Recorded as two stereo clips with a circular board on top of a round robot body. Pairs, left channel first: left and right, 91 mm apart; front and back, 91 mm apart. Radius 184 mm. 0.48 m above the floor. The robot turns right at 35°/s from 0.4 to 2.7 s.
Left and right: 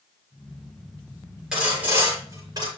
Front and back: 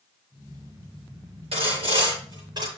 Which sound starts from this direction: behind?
Sawing, at 1.5 s.